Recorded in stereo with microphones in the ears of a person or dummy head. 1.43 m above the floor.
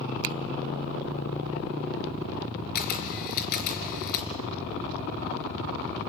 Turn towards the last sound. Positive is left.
turn(degrees=55)  # may be behind; listen again after turning